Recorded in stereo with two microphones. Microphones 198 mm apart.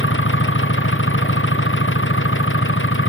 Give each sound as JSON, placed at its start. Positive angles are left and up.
{"t": 0.0, "sound": "an engine running", "side_deg": 80}